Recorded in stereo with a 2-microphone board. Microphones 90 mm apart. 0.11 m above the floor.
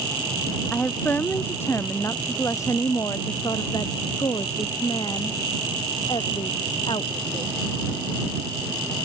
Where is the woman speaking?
15° left (ahead or behind); by 7.6 s 65° left (ahead or behind).